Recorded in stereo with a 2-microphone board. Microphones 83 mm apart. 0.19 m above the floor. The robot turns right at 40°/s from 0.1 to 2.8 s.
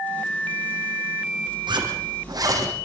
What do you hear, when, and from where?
1.7 s a zipper: 80° right, 7.5 m; by 2.8 s 40° right (ahead or behind), 7.5 m